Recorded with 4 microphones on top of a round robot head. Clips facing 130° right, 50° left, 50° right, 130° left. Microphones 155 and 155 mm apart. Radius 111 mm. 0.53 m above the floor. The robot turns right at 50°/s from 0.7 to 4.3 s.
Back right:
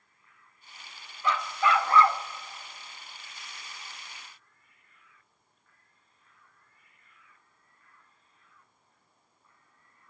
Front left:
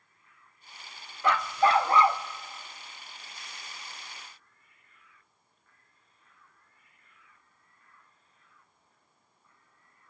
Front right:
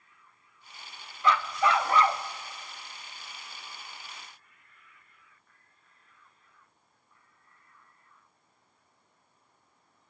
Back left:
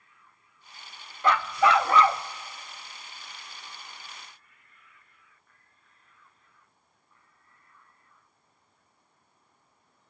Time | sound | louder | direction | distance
1.2 | a dog barking | front left 3 dB, back left 3 dB | 85° left | 0.6 m